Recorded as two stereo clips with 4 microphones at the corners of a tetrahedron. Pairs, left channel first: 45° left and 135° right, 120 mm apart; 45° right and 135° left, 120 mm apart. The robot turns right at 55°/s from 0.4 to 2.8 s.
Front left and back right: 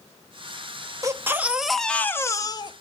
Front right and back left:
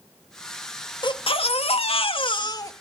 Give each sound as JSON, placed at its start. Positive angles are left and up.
{"t": 1.0, "sound": "a baby crying", "azimuth_deg": -80, "distance_m": 0.7}